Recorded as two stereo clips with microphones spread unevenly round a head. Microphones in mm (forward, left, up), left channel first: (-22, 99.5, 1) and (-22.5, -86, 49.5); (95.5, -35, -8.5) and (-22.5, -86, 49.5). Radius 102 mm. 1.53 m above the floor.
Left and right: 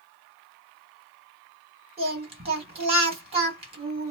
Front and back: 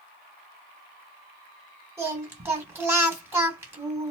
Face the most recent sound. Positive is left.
turn(degrees=-120)